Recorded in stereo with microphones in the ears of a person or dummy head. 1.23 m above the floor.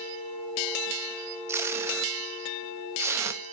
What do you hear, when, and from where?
1.5 s tape being pulled: 15° right (ahead or behind), 0.7 m